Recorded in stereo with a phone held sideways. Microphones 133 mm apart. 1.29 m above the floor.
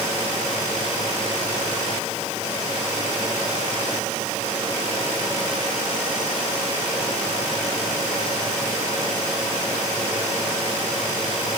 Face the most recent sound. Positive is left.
No sound to turn to.